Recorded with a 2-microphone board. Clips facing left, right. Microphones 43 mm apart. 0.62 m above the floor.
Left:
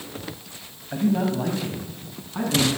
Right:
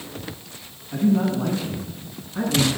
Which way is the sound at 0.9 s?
60° left (ahead or behind).